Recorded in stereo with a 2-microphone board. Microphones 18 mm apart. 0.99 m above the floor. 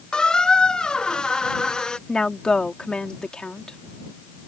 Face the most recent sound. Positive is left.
turn(degrees=50)  # may be behind; listen again after turning